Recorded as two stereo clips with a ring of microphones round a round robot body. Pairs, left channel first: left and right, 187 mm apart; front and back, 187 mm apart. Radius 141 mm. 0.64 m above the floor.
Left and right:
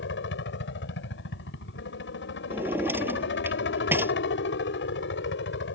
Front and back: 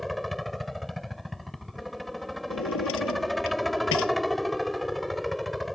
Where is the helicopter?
90° left.